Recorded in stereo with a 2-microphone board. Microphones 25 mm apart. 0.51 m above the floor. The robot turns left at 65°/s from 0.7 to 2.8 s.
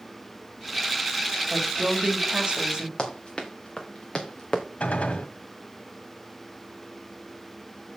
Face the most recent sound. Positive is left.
turn(degrees=80)